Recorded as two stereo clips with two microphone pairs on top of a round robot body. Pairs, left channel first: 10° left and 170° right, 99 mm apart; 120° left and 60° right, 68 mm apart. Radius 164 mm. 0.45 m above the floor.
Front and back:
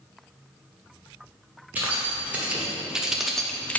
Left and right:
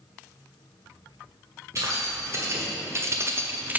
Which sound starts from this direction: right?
Keys jangling, at 1.8 s.